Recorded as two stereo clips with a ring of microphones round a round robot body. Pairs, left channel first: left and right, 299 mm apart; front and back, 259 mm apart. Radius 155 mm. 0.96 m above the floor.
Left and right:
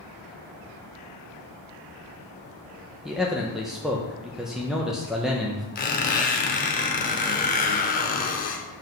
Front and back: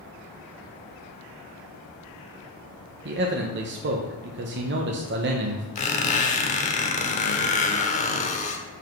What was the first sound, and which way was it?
A man speaking, straight behind.